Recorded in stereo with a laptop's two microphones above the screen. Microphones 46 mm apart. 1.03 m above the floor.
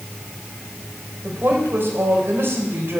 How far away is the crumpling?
No crumpling in this recording.